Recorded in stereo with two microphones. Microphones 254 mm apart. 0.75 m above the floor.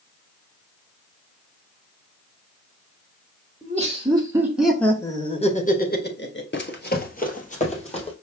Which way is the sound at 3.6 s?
30° right (ahead or behind).